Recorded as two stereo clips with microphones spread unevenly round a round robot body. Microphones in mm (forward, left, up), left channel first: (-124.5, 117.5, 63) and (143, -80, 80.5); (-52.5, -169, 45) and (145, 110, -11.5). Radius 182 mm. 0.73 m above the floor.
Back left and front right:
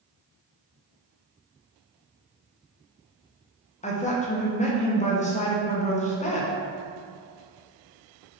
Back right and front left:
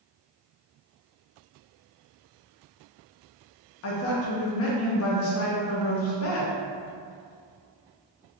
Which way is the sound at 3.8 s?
165° right.